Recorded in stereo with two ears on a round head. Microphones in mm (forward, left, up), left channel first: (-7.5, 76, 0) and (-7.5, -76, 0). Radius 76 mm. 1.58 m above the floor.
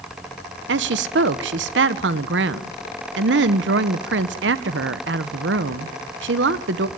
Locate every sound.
0.7 s a woman speaking: 80° right, 1.0 m